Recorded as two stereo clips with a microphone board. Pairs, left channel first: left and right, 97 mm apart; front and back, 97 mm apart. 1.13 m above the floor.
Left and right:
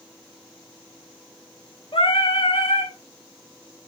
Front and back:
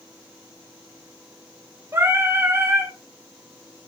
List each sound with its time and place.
1.9 s singing: 115° left, 3.5 m